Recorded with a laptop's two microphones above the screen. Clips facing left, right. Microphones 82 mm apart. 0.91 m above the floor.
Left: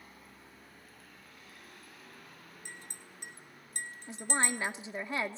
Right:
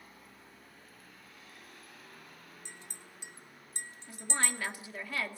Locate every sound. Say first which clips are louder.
2.6 s a clink: left 2 dB; 50° left (ahead or behind), 1.9 m
4.1 s a woman speaking: left 3 dB; 20° left (ahead or behind), 2.5 m